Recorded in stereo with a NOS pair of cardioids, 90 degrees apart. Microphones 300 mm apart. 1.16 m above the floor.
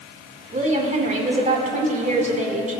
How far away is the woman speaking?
About 4.5 m.